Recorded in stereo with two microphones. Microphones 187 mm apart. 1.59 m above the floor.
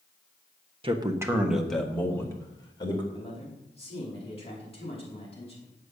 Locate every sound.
0.8 s a man speaking: 30° right (ahead or behind), 1.3 m; by 3.0 s 25° left (ahead or behind), 3 m
3.1 s a man speaking: 30° left (ahead or behind), 4.5 m